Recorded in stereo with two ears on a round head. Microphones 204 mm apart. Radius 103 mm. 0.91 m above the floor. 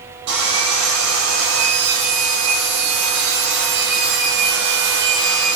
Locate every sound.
0.3 s sawing: 50° right (ahead or behind), 9.5 m